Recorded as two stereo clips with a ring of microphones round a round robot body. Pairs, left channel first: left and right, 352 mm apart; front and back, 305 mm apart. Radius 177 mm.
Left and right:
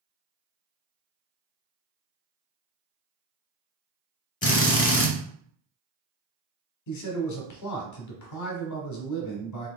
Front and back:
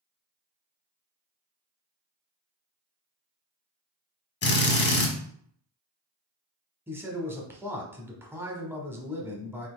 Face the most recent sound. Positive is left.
turn(degrees=100)